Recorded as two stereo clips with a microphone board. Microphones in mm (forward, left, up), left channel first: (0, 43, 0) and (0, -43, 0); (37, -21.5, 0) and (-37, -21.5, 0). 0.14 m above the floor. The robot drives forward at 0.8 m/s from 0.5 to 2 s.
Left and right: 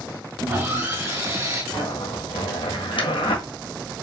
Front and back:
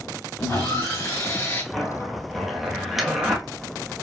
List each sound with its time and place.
0.4 s sawing: 35° right, 3 m; by 1.6 s 50° right, 2 m
1.7 s a zipper: 85° left, 1.4 m; by 3.4 s 90° left, 1.4 m